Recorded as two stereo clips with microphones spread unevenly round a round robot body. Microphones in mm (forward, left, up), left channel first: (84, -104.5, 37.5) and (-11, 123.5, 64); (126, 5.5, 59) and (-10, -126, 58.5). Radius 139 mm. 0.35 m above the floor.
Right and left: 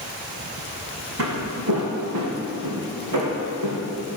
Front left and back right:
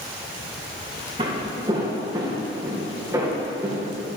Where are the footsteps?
155° left, 1.8 m; by 3.8 s 140° left, 3 m.